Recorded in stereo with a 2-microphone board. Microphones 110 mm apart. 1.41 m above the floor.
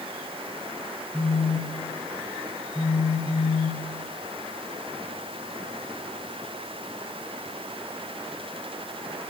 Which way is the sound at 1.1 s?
20° left (ahead or behind).